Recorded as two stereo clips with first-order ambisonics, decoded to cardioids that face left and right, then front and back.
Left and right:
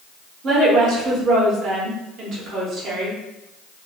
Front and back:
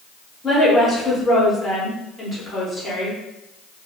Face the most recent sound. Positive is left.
turn(degrees=-70)